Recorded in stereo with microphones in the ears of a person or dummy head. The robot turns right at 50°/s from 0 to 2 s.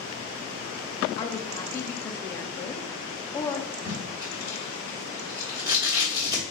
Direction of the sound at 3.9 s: 15° right (ahead or behind).